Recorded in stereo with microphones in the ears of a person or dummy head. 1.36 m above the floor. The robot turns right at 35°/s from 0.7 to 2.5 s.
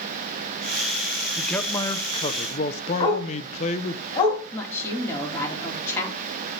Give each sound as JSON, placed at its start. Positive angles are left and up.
{"t": 1.4, "sound": "a man speaking", "azimuth_deg": 0, "distance_m": 0.8}
{"t": 3.0, "sound": "a dog barking", "side_deg": 30, "distance_m": 2.5}
{"t": 4.5, "sound": "a woman speaking", "side_deg": 15, "distance_m": 2.5}